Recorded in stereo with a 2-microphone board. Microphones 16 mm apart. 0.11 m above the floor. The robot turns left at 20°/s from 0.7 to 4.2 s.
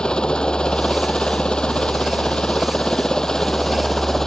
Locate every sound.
0.0 s a helicopter: 95° left; by 4.3 s 25° left